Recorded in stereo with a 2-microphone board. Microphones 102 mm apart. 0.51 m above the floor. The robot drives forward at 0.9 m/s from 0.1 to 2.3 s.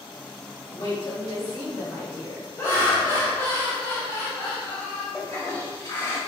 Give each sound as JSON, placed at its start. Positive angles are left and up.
{"t": 0.7, "sound": "a woman speaking", "side_deg": 40, "distance_m": 1.8}
{"t": 2.6, "sound": "laughter", "side_deg": 25, "distance_m": 1.1}
{"t": 5.1, "sound": "a toilet flushing", "side_deg": 30, "distance_m": 1.7}